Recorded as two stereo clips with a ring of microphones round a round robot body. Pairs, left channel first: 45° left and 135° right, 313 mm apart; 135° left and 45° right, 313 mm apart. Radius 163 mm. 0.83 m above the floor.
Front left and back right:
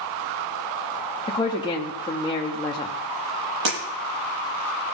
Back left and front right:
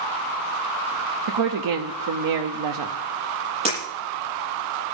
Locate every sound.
1.3 s a woman speaking: 30° right, 1.1 m
3.6 s breaking glass: 115° right, 9.5 m